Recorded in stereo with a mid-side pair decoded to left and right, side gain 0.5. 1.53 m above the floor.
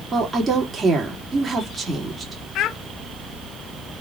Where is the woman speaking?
30° right, 3 m.